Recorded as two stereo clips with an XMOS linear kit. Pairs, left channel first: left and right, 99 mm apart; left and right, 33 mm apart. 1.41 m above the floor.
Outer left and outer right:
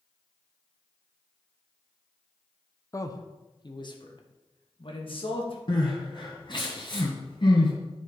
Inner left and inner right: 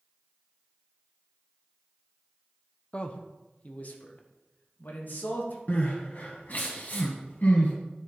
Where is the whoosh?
I don't hear a whoosh.